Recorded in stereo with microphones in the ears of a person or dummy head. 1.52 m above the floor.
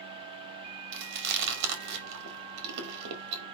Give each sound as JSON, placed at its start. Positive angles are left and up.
{"t": 0.9, "sound": "chewing", "side_deg": -70, "distance_m": 2.5}